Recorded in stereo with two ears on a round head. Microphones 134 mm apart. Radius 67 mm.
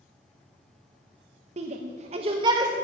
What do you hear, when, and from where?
1.6 s a shout: 45° right (ahead or behind), 1.0 m; by 2.7 s 25° right (ahead or behind), 1.7 m